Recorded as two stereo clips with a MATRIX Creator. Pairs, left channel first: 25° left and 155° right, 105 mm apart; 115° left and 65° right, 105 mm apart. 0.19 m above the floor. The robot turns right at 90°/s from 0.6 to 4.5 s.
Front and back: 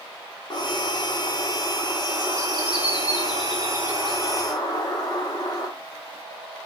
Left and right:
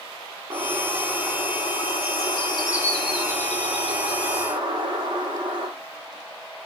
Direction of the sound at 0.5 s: 20° right.